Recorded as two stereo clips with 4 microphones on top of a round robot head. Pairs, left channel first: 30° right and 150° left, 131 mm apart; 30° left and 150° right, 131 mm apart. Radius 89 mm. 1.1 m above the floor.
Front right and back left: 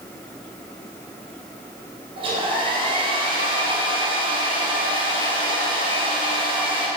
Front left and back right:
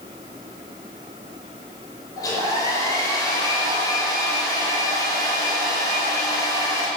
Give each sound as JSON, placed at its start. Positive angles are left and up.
{"t": 2.2, "sound": "a hair dryer", "azimuth_deg": 95, "distance_m": 4.5}